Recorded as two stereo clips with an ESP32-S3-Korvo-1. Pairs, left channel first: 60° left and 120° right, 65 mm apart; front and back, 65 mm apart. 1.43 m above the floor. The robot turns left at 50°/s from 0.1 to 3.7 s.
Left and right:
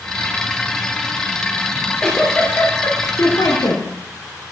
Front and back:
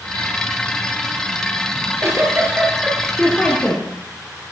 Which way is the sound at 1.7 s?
160° left.